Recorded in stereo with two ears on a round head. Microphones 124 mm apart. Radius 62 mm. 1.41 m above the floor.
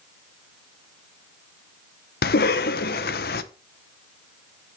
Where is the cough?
75° left (ahead or behind), 0.9 m.